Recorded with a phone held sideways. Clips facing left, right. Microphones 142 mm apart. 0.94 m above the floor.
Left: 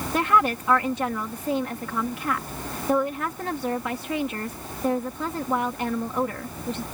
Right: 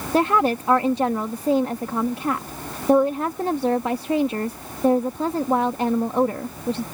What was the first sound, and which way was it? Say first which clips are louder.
A woman speaking: right 4 dB; 30° right (ahead or behind).